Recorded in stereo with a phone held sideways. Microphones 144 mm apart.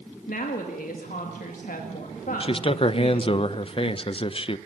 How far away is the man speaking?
About 0.6 m.